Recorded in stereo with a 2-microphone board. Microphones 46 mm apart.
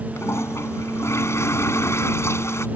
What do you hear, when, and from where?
0.2 s a toilet flushing: 75° left (ahead or behind)